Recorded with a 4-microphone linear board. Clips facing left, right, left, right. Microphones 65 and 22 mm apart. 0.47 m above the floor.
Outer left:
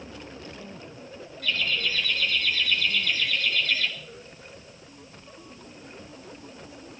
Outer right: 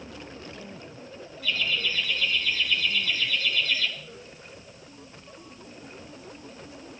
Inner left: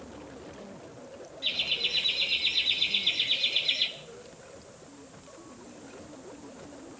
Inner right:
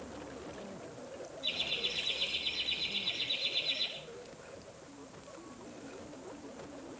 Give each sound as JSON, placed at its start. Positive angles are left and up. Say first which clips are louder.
{"t": 1.4, "sound": "laughter", "louder": "even, inner left 6 dB", "side_deg": 70, "distance_m": 4.5}